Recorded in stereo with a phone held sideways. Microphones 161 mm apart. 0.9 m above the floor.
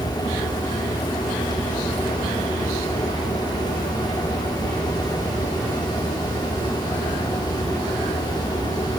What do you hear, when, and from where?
0.0 s a fan: 25° left (ahead or behind), 4 m